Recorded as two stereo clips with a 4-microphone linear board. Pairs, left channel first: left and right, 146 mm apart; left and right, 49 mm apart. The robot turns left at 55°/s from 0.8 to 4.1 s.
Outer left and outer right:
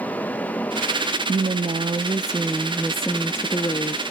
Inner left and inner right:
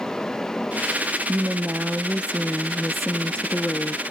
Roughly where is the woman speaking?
Right.